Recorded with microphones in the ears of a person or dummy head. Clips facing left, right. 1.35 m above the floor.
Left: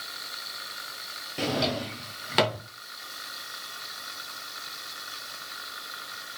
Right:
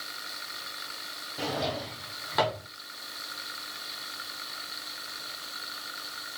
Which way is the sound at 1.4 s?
30° left (ahead or behind).